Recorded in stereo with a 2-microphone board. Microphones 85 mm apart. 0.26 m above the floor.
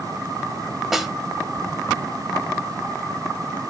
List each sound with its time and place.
0.9 s a snare drum: 5° right (ahead or behind), 1.2 m